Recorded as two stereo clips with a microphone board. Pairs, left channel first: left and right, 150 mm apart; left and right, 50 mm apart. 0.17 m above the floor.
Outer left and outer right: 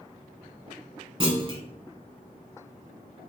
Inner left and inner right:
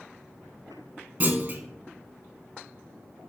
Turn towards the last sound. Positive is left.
turn(degrees=-35)  # may be behind; listen again after turning